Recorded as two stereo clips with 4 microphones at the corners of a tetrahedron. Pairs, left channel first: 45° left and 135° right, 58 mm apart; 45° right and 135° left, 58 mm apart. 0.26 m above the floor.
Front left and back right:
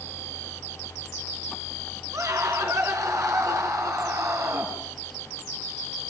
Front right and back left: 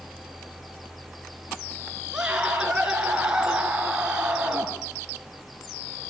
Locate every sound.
2.1 s a scream: 150° right, 4 m